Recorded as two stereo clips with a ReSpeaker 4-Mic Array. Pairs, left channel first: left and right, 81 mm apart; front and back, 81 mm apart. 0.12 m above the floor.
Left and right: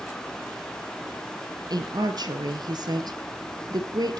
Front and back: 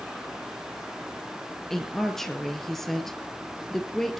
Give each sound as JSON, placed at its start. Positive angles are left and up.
{"t": 1.7, "sound": "a woman speaking", "azimuth_deg": -85, "distance_m": 2.0}